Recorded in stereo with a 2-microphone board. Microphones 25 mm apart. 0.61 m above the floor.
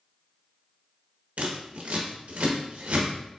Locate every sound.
1.4 s scissors: 80° right, 1.0 m